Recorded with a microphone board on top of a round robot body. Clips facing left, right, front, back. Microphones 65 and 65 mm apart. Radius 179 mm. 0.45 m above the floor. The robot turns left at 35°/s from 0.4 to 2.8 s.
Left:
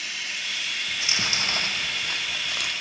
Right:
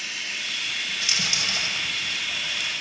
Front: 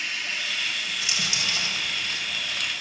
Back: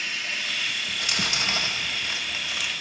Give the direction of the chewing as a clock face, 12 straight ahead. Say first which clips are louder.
Left 2 dB, back 2 dB; 7 o'clock.